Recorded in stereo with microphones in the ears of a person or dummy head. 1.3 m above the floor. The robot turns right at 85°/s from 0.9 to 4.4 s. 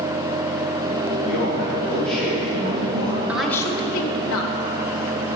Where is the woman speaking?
10° right, 1.0 m; by 4.5 s 85° left, 1.0 m.